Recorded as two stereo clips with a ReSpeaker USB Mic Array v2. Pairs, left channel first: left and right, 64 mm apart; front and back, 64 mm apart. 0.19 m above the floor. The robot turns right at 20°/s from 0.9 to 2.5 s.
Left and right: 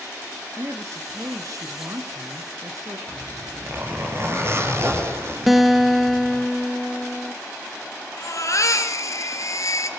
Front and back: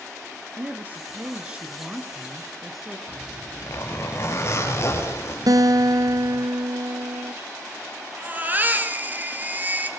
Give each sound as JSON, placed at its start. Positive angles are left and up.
{"t": 0.6, "sound": "a woman speaking", "azimuth_deg": -125, "distance_m": 2.5}
{"t": 3.1, "sound": "a zipper", "azimuth_deg": -45, "distance_m": 5.0}
{"t": 5.5, "sound": "a guitar", "azimuth_deg": 180, "distance_m": 1.2}
{"t": 8.2, "sound": "a baby crying", "azimuth_deg": 120, "distance_m": 3.0}